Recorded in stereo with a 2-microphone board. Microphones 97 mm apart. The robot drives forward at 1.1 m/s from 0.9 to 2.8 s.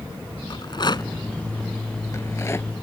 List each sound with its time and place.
0.5 s a rattle: 50° left (ahead or behind); by 2.7 s 25° left (ahead or behind)